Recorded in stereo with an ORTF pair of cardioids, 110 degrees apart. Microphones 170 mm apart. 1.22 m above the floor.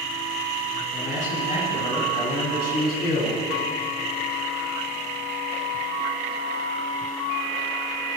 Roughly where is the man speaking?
Ahead left.